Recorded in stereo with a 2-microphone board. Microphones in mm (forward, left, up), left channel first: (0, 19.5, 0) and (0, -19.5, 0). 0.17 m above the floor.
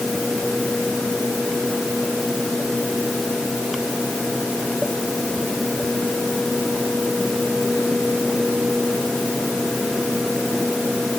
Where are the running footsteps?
I don't hear running footsteps.